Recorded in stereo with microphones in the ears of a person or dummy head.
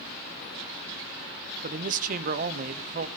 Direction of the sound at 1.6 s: 50° right (ahead or behind).